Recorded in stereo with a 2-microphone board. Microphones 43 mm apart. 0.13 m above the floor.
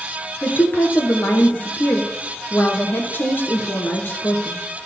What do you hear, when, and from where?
0.4 s a woman speaking: 50° left (ahead or behind), 2.0 m